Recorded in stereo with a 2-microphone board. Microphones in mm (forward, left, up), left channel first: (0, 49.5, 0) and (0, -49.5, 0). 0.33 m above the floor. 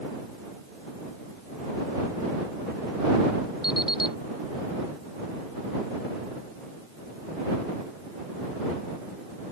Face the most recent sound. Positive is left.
turn(degrees=45)  # may be behind; listen again after turning